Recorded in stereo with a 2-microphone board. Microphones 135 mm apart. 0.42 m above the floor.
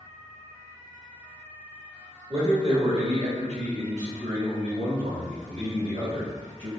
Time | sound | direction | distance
2.3 | a man speaking | 35° right (ahead or behind) | 1.2 m